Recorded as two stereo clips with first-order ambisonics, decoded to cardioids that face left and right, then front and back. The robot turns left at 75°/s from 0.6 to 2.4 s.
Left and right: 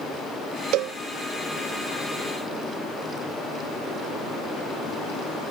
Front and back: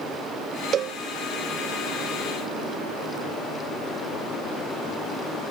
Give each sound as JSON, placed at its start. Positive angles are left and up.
{"t": 0.7, "sound": "a cowbell", "azimuth_deg": -120}